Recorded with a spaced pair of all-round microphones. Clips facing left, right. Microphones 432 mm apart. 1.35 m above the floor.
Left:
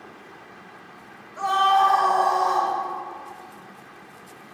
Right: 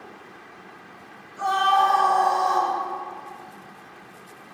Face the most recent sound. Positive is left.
turn(degrees=70)  # may be behind; listen again after turning